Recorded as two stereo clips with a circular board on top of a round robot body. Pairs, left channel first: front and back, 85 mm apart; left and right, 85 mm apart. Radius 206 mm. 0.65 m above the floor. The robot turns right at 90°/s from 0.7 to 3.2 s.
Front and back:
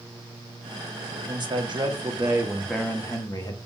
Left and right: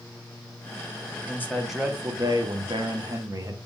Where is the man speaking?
140° left, 2.5 m; by 3.6 s 45° right, 2.5 m.